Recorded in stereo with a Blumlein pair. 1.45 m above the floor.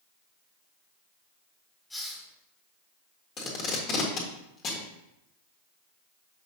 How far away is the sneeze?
No sneeze in this recording.